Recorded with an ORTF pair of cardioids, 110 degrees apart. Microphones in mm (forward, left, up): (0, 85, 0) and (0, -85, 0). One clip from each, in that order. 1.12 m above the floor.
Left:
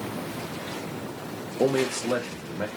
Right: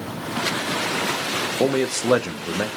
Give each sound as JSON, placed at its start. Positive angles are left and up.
{"t": 1.6, "sound": "a man speaking", "azimuth_deg": -15, "distance_m": 0.5}